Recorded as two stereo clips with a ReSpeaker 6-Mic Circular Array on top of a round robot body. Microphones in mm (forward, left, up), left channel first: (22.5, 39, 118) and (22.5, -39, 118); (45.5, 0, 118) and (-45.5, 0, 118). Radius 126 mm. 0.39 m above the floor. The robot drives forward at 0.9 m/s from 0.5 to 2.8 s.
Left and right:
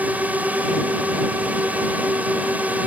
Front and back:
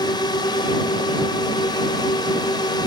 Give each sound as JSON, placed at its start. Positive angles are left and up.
{"t": 0.0, "sound": "a drone", "azimuth_deg": -25}